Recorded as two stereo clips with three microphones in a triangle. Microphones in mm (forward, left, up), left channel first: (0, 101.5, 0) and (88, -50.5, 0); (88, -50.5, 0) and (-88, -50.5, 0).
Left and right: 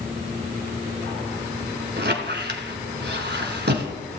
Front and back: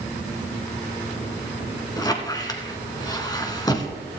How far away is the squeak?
About 1.5 m.